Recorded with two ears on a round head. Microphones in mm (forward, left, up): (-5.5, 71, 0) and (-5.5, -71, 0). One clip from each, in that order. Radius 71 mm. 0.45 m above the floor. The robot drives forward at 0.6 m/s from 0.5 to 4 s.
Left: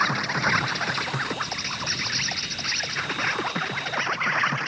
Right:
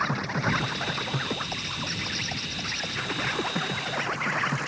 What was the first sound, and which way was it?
An insect, 45° left (ahead or behind).